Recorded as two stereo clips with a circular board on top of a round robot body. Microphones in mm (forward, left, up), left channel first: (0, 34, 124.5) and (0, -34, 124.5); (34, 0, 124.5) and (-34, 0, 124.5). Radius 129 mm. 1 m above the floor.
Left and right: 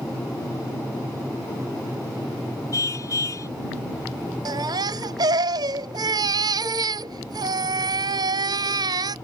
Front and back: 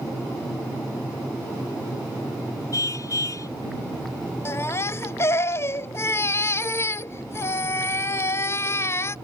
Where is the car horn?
45° left.